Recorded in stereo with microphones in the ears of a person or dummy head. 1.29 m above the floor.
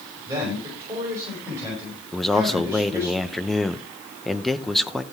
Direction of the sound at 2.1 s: 5° left (ahead or behind).